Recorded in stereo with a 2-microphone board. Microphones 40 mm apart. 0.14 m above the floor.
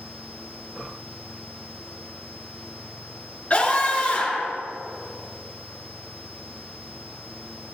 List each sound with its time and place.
3.5 s a scream: 35° left (ahead or behind), 2.5 m